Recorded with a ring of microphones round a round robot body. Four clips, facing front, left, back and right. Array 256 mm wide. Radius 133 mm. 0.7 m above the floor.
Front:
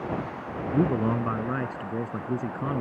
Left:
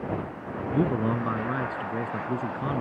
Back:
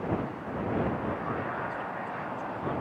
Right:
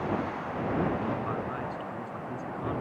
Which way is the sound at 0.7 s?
35° left.